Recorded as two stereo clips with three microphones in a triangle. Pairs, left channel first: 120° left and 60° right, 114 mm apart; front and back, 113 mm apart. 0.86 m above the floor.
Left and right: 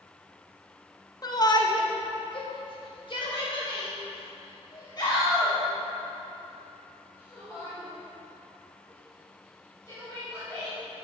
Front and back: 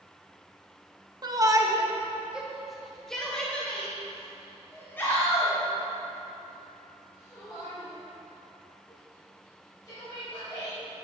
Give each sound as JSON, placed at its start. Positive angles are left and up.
{"t": 1.2, "sound": "a shout", "azimuth_deg": 155, "distance_m": 1.0}